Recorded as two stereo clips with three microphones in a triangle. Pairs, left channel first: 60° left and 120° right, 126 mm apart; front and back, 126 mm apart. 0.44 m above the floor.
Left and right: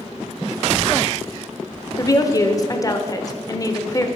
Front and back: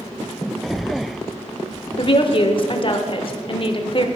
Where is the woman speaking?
10° left, 1.0 m.